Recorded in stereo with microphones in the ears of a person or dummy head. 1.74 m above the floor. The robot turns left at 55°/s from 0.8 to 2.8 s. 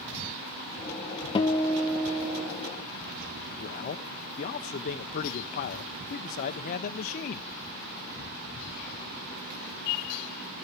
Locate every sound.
1.4 s a guitar: 35° left, 1.0 m; by 2.5 s 30° right, 1.0 m
3.6 s a man speaking: 35° left (ahead or behind), 0.8 m